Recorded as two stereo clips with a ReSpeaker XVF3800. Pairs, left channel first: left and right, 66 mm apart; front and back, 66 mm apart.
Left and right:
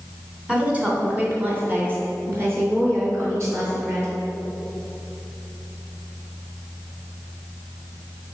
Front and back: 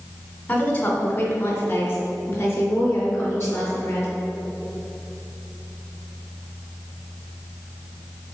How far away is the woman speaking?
About 1.7 m.